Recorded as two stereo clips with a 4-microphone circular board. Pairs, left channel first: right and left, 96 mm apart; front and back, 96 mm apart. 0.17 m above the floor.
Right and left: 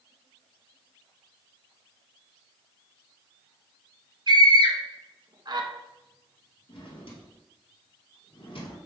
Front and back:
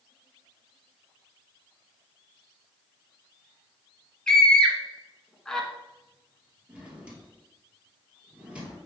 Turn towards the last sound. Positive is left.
turn(degrees=-105)